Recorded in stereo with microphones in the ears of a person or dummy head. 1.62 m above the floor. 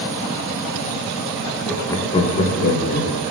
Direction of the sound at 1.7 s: Centre (ahead or behind).